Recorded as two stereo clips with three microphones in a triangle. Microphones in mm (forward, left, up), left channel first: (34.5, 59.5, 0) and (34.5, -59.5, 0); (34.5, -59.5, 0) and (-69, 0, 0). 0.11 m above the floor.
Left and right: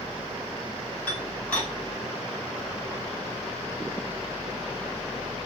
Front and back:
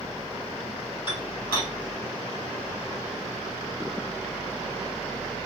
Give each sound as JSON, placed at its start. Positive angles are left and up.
{"t": 1.1, "sound": "dishes clattering", "azimuth_deg": 15, "distance_m": 2.0}